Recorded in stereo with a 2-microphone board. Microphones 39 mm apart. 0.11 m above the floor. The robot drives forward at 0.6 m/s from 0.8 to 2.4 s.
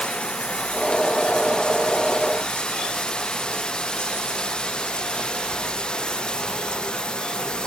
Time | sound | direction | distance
0.0 | running water | 25° left (ahead or behind) | ?